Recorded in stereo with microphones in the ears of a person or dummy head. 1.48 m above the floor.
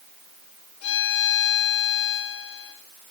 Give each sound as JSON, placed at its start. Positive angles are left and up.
{"t": 0.8, "sound": "a violin", "side_deg": 75, "distance_m": 4.0}